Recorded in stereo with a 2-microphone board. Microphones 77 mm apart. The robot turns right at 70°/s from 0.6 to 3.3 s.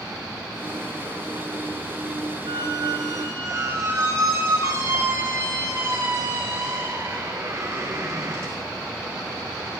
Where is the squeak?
100° right, 6.5 m; by 8.6 s 40° right, 6.5 m.